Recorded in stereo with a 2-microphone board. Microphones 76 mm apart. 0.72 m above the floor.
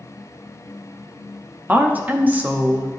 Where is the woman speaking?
20° right (ahead or behind), 0.7 m.